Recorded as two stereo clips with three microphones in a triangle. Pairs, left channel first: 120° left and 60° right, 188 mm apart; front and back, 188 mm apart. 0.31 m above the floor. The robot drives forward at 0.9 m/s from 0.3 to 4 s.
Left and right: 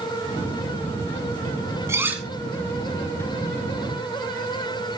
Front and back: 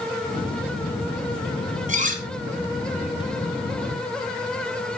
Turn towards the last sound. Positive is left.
turn(degrees=-160)